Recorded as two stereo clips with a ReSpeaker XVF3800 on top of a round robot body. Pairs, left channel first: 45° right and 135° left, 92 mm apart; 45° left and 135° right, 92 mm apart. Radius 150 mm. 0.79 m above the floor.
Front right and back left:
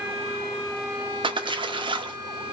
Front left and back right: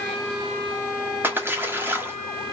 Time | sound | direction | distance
1.2 | a splash | 160° left | 1.2 m